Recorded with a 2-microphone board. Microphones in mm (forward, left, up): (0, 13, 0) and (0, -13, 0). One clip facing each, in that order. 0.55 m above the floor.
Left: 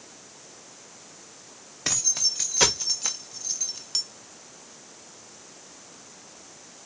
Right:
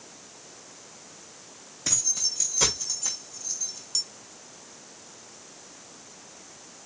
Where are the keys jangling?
45° left (ahead or behind), 1.7 m; by 4.0 s 35° left (ahead or behind), 0.6 m.